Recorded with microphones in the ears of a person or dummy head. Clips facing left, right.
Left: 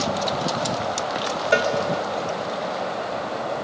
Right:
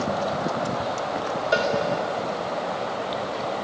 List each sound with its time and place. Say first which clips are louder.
1.5 s a cowbell: left 2 dB; 25° left (ahead or behind), 2.5 m